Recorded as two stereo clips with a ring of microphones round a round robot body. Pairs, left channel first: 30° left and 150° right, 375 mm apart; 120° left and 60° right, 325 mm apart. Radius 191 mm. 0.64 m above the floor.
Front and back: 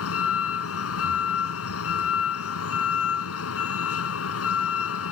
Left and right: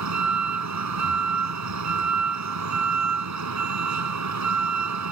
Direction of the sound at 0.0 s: 25° right.